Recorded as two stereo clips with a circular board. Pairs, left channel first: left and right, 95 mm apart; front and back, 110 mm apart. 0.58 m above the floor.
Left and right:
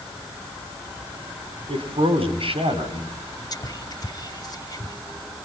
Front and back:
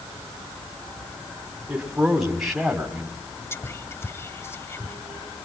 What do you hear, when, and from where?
1.7 s a man speaking: 95° right, 3.5 m; by 3.1 s 90° right, 4.5 m
3.5 s whispering: 60° left, 1.1 m